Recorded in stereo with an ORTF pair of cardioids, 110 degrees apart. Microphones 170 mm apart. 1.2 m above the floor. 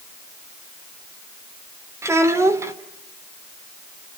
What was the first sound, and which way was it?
A child speaking, 15° right.